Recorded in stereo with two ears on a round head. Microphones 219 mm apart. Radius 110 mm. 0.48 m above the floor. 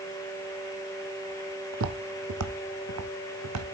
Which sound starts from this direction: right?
Footsteps, at 1.7 s.